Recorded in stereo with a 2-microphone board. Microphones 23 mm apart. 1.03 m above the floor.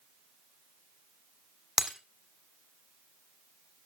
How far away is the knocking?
No knocking in this recording.